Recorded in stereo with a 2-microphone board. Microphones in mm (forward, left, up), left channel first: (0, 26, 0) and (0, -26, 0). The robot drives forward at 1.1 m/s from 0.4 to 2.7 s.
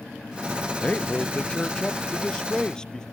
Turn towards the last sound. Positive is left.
turn(degrees=15)  # may be behind; listen again after turning